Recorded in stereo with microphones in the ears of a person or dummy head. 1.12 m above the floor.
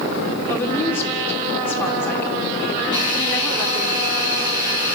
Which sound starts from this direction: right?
A hiss, at 2.9 s.